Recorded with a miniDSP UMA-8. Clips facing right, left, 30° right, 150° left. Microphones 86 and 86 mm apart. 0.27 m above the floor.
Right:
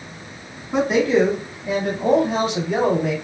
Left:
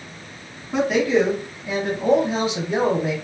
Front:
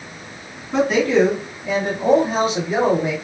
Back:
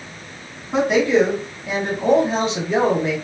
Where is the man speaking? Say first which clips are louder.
Right 1 dB, even; 155° right, 1.7 m; by 3.1 s 95° right, 1.8 m.